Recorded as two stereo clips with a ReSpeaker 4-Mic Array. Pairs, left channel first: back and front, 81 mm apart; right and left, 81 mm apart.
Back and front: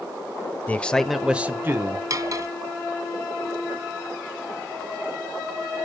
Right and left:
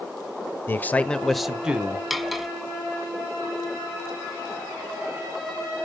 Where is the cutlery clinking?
Straight ahead, 0.9 m.